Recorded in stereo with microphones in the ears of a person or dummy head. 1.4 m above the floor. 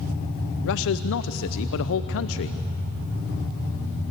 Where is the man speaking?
70° left (ahead or behind), 0.7 m.